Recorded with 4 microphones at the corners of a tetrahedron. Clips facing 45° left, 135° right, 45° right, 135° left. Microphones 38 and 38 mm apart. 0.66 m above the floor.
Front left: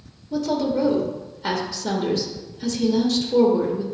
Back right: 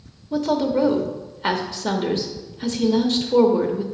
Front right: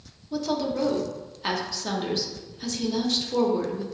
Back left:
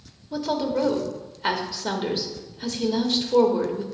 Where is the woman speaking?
155° right, 1.0 m.